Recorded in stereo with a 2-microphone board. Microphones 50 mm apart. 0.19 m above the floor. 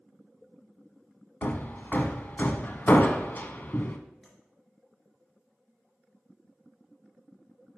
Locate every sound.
1.4 s hammering: 40° left (ahead or behind), 0.6 m
4.2 s tapping: 5° left (ahead or behind), 3.5 m